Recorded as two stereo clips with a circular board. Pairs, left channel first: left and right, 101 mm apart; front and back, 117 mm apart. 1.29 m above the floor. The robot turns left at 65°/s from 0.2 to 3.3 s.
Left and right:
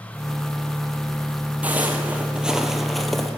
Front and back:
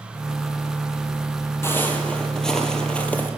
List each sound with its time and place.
1.6 s footsteps: 35° right, 1.4 m; by 3.3 s straight ahead, 1.3 m